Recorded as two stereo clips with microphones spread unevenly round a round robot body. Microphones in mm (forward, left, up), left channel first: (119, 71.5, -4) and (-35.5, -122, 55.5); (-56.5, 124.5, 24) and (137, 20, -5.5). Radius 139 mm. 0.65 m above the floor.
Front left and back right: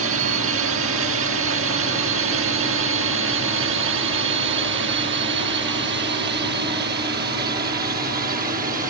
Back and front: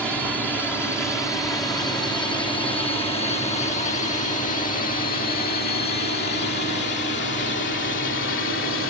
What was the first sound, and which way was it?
A drone, 115° right.